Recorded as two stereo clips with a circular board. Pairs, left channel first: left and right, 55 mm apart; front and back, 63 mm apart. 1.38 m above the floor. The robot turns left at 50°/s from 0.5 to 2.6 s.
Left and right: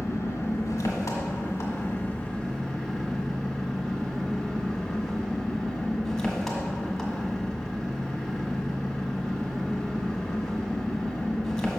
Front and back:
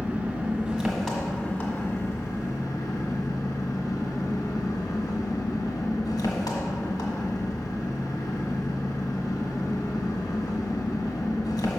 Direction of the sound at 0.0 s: 110° left.